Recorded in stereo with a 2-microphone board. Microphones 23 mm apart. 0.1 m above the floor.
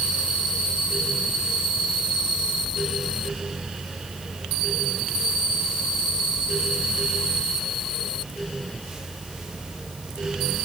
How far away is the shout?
I don't hear a shout.